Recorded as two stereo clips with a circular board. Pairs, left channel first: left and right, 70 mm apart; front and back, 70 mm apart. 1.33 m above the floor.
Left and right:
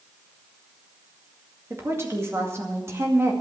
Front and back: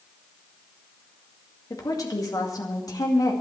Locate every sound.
1.7 s a woman speaking: 35° right, 2 m